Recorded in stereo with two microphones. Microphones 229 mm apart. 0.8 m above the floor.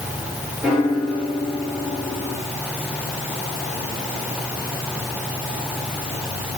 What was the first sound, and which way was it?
A piano, 5° right (ahead or behind).